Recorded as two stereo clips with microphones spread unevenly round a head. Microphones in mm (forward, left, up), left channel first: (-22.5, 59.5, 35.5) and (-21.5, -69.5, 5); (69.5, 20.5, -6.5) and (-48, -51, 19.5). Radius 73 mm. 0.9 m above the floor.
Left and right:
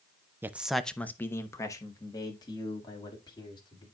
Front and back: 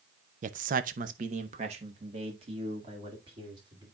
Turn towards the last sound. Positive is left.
turn(degrees=150)